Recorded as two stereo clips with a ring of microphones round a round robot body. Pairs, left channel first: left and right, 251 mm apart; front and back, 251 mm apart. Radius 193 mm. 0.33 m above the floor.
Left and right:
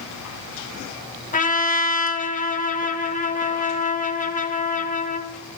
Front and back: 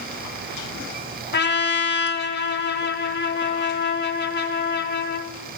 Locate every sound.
1.3 s a trumpet: 35° left, 0.9 m